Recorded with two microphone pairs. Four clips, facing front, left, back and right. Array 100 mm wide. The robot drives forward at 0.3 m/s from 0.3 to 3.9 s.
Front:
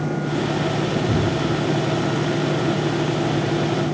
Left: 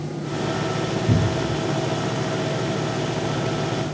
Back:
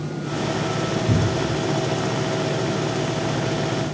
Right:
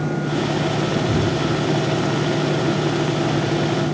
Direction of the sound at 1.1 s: 75° left.